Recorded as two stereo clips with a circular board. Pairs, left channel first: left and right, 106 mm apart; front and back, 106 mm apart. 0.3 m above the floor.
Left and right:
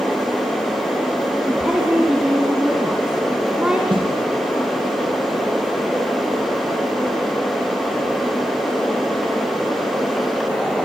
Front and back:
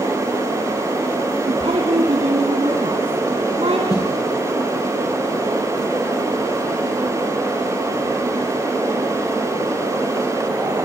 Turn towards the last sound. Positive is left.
turn(degrees=-50)